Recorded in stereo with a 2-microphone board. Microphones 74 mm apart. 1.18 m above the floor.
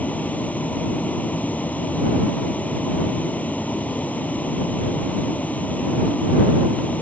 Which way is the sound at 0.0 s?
20° left (ahead or behind).